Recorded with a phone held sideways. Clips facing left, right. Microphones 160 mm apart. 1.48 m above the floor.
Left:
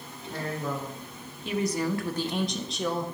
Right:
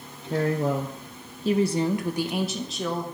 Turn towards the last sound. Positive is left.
turn(degrees=5)  # may be behind; listen again after turning